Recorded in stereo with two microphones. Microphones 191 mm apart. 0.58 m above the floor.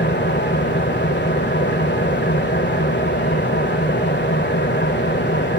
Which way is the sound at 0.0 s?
70° left (ahead or behind).